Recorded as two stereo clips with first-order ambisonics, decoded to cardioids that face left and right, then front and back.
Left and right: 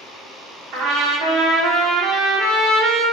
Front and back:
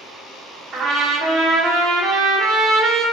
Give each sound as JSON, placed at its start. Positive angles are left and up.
{"t": 0.7, "sound": "a trumpet", "azimuth_deg": -120, "distance_m": 0.5}